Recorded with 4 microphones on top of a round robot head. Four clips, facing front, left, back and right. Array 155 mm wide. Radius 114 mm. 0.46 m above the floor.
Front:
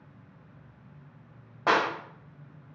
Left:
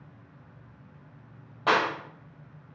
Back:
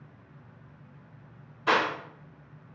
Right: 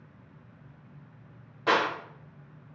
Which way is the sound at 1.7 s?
25° left.